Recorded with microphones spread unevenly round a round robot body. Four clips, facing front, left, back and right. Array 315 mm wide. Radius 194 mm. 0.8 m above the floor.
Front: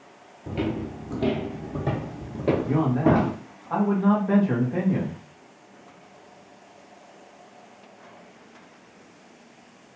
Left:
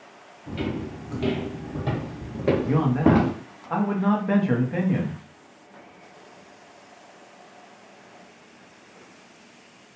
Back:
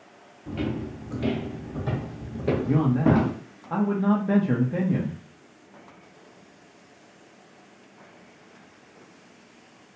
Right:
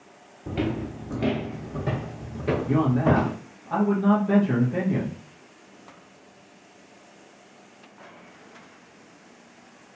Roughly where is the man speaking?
Behind.